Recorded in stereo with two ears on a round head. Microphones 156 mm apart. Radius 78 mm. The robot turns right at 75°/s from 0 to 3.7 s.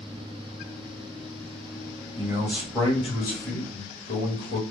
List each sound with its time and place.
2.2 s a man speaking: 35° right, 1.7 m; by 4.6 s 80° left, 1.7 m